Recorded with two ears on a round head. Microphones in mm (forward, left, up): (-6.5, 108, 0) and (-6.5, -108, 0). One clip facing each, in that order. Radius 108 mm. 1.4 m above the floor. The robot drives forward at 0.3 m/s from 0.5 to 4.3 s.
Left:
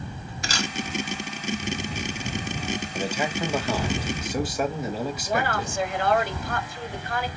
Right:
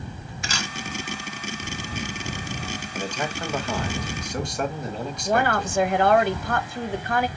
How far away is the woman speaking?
About 0.8 m.